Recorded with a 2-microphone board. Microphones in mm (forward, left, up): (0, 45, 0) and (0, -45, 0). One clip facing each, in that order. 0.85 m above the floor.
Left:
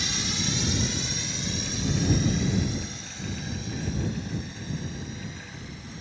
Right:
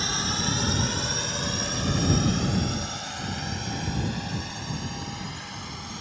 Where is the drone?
40° right (ahead or behind); by 6.0 s 65° right (ahead or behind).